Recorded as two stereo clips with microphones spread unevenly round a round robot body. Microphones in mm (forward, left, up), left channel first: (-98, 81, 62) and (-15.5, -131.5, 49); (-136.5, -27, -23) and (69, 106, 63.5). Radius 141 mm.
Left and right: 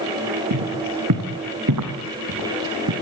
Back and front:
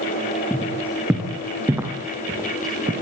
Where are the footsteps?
50° right, 5.5 m; by 2.9 s 40° right, 4 m.